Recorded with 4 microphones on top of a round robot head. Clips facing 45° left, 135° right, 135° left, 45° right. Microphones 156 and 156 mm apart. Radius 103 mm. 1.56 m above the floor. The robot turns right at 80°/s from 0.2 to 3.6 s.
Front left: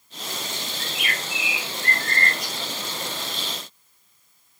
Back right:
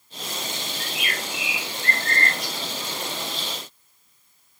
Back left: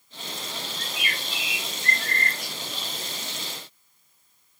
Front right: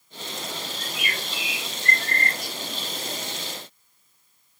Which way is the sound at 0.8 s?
80° right.